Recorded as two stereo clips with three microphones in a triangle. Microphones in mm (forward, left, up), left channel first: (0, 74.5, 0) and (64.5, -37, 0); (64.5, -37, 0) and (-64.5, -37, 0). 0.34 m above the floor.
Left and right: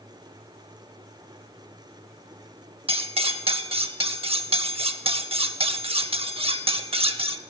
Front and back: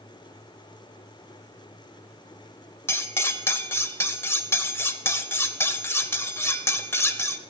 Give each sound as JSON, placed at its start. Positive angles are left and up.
{"t": 2.9, "sound": "cutlery clinking", "azimuth_deg": -65, "distance_m": 0.6}